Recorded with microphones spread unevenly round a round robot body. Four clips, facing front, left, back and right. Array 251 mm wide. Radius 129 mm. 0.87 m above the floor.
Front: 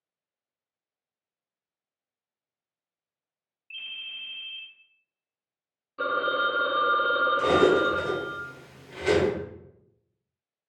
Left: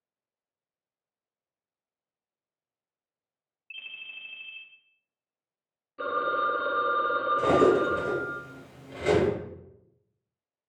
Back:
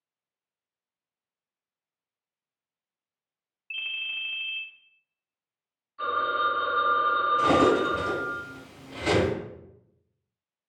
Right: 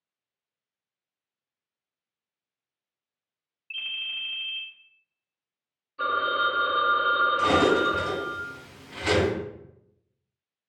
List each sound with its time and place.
3.7 s a ringtone: 165° right, 0.9 m
6.0 s a phone ringing: 25° left, 0.5 m
7.4 s cutlery clinking: 105° left, 1.7 m